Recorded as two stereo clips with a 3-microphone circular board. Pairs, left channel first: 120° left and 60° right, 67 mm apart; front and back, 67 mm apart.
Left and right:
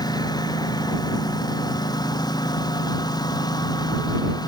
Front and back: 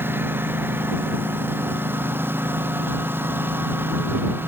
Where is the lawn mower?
120° left.